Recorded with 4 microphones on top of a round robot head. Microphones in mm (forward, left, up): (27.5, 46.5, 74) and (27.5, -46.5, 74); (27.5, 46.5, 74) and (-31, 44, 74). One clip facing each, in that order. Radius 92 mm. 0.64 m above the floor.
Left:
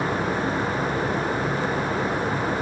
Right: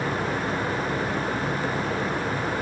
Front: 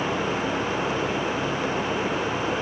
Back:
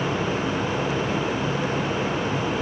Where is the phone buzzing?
No phone buzzing in this recording.